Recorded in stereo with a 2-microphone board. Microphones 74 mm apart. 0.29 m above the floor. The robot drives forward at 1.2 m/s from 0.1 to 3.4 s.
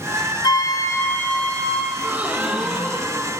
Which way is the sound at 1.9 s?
20° right (ahead or behind).